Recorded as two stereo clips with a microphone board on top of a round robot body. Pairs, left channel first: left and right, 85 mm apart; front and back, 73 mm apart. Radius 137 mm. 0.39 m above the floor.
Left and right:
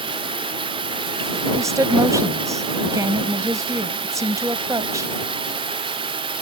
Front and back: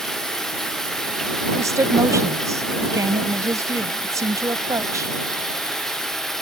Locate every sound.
0.0 s running water: 85° right
1.6 s a woman speaking: 140° right